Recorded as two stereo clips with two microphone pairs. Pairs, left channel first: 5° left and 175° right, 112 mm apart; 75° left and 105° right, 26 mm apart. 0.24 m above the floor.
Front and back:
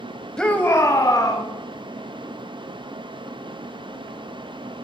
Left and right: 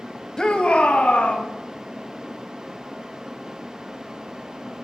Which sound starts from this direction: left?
A shout, at 0.4 s.